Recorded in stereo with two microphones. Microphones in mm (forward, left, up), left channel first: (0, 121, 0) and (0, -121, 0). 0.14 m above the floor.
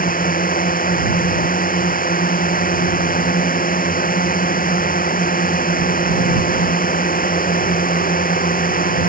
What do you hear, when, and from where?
0.0 s a drone: 35° left (ahead or behind)